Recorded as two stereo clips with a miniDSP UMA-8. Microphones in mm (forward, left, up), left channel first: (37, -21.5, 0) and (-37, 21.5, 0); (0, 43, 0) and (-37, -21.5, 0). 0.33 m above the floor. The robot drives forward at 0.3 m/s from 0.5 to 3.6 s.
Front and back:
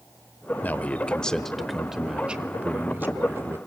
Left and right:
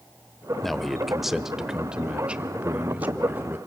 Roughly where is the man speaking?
Ahead.